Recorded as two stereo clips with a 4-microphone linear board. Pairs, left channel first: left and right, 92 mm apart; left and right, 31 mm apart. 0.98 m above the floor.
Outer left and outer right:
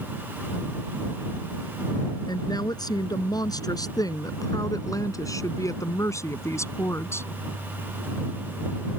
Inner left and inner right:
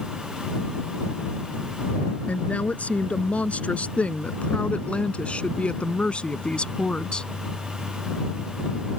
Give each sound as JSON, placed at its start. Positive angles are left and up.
{"t": 2.3, "sound": "a woman speaking", "side_deg": 50}